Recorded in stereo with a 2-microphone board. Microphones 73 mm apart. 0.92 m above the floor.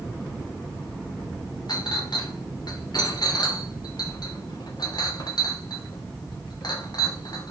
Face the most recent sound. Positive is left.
turn(degrees=60)  # may be behind; listen again after turning